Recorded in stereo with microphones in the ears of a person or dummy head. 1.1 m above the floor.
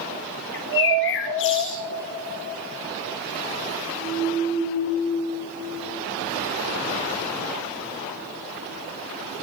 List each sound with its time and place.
0.5 s a bird: 60° left (ahead or behind), 0.8 m